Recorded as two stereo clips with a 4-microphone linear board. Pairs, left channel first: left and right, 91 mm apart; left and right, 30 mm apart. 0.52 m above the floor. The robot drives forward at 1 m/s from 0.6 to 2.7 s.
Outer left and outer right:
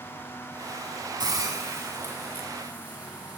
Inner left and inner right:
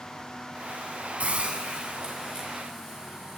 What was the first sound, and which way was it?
A hiss, 50° right (ahead or behind).